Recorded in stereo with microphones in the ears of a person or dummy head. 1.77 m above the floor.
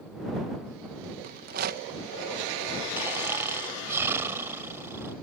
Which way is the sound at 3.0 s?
15° right (ahead or behind).